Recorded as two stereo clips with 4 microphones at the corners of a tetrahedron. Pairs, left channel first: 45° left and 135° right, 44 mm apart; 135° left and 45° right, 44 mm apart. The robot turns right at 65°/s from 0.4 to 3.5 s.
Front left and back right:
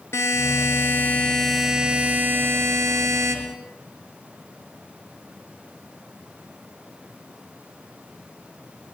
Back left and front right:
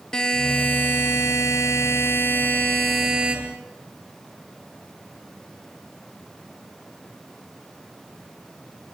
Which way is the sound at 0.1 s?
60° left.